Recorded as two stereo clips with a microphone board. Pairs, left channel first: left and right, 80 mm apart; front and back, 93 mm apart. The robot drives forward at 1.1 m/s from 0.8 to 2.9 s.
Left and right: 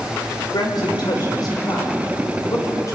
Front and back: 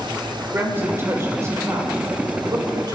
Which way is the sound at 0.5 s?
115° left.